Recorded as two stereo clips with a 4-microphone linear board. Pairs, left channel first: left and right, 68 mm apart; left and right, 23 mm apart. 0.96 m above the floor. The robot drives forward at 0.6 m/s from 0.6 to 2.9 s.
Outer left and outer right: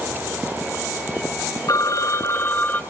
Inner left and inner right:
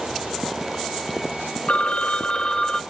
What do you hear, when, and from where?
1.7 s a phone ringing: 60° left (ahead or behind), 0.5 m; by 2.8 s 30° left (ahead or behind), 0.9 m